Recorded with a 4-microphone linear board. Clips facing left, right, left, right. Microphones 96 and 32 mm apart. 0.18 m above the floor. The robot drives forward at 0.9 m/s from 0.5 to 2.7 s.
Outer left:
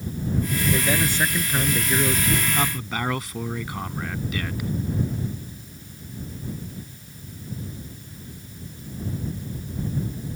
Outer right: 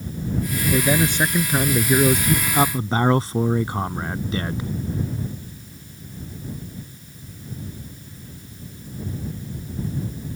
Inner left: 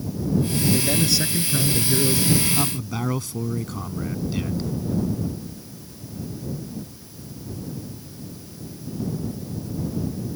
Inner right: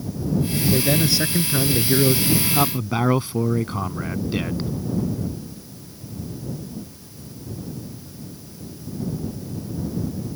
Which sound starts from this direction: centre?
A man speaking, at 0.7 s.